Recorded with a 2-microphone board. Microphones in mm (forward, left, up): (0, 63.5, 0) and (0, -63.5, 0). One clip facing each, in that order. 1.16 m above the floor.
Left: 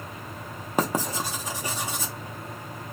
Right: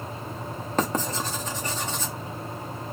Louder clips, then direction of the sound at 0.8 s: Left 1 dB; 10° left (ahead or behind).